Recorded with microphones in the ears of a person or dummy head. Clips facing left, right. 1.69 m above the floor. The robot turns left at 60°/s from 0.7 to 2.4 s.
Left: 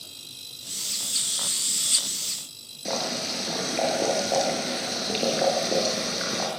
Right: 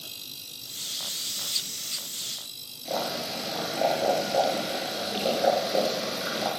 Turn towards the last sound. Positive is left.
turn(degrees=75)  # may be behind; listen again after turning